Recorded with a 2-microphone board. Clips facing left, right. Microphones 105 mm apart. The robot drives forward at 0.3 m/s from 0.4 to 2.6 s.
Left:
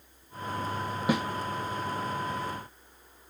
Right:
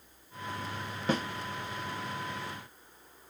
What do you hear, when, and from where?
1.1 s a snare drum: 10° left (ahead or behind), 0.6 m